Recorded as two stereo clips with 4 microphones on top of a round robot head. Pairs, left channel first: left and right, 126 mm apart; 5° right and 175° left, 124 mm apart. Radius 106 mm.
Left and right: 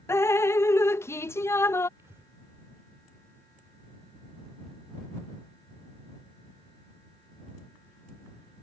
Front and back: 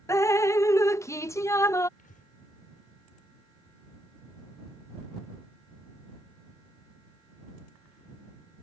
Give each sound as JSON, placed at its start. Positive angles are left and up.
{"t": 0.1, "sound": "dripping", "azimuth_deg": 40}
{"t": 2.0, "sound": "breathing", "azimuth_deg": -15}